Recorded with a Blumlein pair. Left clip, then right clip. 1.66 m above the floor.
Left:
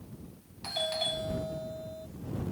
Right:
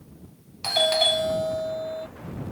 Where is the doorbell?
60° right.